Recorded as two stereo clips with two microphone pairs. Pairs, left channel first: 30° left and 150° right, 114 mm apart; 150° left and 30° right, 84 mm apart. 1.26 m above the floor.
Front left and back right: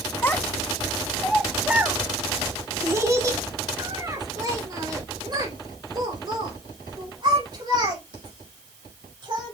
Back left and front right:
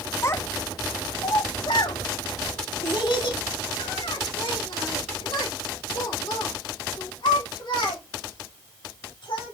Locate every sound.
0.2 s a child speaking: 95° left, 0.9 m; by 9.5 s 165° left, 5 m